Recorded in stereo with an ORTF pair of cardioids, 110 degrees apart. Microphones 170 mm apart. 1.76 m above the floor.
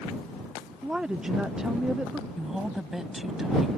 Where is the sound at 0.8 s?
5° right.